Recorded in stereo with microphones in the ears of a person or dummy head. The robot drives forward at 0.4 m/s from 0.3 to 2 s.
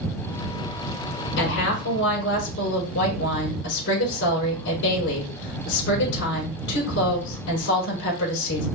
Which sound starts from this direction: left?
A woman speaking, at 1.4 s.